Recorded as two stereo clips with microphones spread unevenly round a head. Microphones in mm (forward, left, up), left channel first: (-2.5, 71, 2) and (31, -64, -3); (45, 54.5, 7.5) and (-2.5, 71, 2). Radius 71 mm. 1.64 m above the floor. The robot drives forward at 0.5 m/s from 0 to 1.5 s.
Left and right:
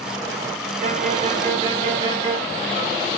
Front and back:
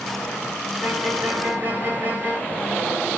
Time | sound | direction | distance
0.8 | a violin | 100° right | 0.8 m